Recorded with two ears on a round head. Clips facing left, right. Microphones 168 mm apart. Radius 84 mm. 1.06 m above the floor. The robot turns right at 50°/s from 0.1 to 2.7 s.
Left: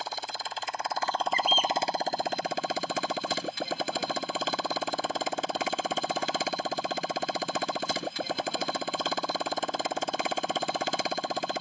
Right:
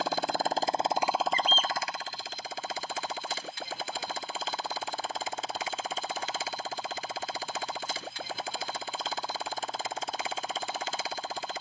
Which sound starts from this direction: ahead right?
A motorcycle, at 0.0 s.